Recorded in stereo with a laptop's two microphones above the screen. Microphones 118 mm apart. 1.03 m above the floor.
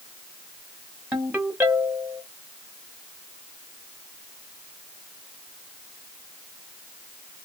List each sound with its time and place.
1.1 s a ringtone: 15° right (ahead or behind), 1.0 m